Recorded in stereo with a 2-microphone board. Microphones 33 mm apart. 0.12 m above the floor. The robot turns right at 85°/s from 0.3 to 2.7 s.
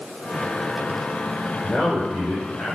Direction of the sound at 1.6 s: 10° left.